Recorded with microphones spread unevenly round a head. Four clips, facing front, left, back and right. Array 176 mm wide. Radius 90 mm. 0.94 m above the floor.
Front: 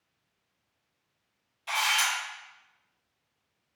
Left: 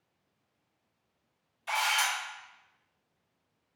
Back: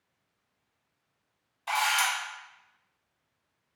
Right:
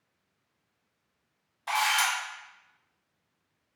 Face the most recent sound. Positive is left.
turn(degrees=-120)